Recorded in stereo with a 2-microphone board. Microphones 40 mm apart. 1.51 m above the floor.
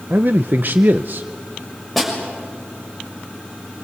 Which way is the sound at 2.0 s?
Centre (ahead or behind).